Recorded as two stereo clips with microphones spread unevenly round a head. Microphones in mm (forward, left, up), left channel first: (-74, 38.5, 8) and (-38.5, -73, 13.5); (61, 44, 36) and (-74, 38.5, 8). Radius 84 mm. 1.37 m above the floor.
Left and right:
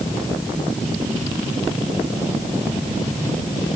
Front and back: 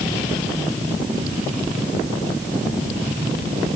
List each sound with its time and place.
Only background noise.